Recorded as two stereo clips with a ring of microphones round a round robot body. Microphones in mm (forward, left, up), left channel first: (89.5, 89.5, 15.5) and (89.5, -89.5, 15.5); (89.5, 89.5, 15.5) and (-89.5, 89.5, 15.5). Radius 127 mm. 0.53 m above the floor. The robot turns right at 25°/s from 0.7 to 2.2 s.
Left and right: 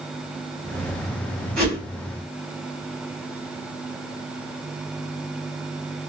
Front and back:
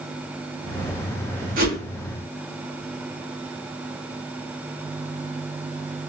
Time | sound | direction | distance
1.6 | a whoosh | 175° left | 1.7 m